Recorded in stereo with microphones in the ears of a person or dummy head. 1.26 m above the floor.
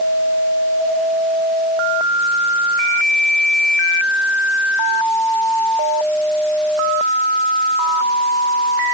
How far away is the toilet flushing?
I don't hear a toilet flushing.